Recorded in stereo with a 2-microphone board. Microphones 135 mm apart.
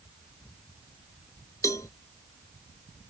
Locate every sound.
1.6 s a cowbell: 25° left (ahead or behind)